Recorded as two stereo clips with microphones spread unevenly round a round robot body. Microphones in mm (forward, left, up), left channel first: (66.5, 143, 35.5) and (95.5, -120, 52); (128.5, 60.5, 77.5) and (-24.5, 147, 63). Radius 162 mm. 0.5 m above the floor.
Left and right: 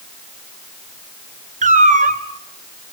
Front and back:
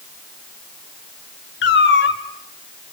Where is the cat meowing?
20° right, 2.0 m.